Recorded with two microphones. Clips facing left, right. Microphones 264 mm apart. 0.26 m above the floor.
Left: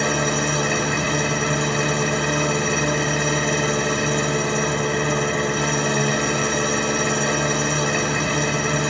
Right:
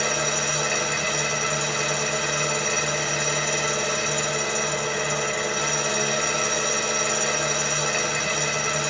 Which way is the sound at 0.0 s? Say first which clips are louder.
Left 6 dB; 60° left (ahead or behind).